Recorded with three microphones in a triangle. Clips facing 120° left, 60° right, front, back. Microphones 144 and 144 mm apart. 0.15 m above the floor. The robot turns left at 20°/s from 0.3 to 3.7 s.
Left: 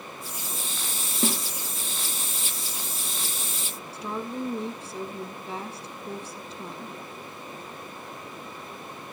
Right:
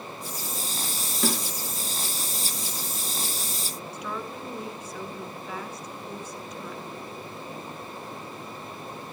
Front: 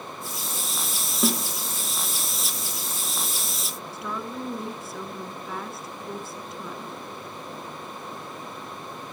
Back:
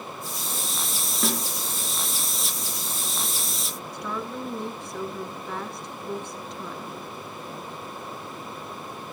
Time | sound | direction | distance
1.2 | a snare drum | 75° left | 2.5 m
3.9 | a woman speaking | 85° left | 1.4 m